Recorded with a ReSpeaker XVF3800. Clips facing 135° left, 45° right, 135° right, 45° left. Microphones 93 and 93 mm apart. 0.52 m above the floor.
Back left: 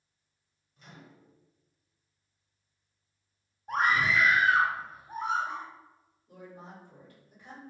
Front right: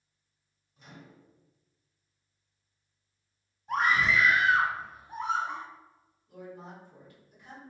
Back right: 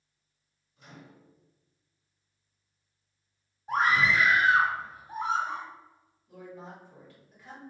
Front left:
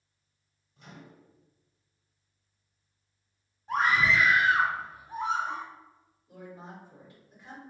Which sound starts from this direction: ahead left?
A microwave, at 0.8 s.